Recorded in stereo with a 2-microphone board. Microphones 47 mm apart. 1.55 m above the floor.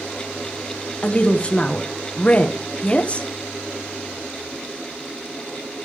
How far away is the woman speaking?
About 1.2 m.